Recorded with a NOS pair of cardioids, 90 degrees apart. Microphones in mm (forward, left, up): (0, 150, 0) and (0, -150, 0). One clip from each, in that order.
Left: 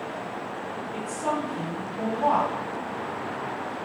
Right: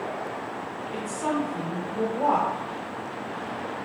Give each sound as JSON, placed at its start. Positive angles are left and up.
{"t": 0.9, "sound": "a woman speaking", "azimuth_deg": -50, "distance_m": 0.8}